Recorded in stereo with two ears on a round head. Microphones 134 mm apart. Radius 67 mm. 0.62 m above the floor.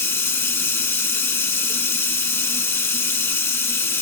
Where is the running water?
15° left (ahead or behind), 0.8 m.